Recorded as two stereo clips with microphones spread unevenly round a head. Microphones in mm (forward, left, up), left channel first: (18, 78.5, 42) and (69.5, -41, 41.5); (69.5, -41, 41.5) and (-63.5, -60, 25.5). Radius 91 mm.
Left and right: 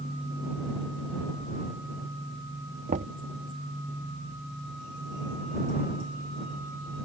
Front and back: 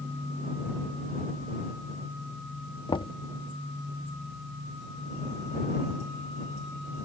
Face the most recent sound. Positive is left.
turn(degrees=-45)